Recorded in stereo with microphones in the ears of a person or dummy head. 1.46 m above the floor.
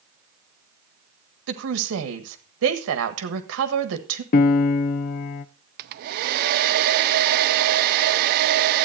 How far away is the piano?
About 0.5 m.